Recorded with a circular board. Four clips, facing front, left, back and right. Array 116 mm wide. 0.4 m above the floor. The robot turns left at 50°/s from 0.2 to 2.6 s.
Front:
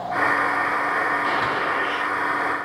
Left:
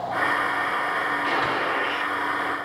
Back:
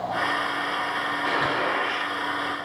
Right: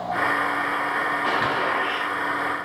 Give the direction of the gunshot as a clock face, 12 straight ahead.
3 o'clock.